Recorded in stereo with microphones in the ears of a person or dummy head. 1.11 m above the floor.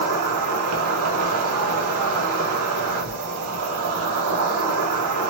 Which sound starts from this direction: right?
An insect, at 0.0 s.